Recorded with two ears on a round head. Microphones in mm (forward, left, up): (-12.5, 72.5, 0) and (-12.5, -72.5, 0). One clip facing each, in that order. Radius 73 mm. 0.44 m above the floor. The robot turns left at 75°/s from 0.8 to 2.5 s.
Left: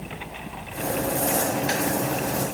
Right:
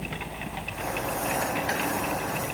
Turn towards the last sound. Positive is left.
No sound to turn to.